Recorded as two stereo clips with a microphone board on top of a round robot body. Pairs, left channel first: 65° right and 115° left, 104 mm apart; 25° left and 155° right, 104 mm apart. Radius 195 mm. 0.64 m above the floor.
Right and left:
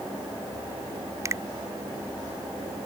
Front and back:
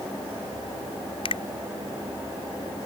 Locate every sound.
1.2 s a finger snap: 50° left